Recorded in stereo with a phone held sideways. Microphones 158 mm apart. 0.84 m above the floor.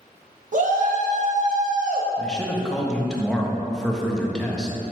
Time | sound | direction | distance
0.5 | a shout | 55° right (ahead or behind) | 0.7 m
2.2 | a man speaking | 5° left (ahead or behind) | 0.6 m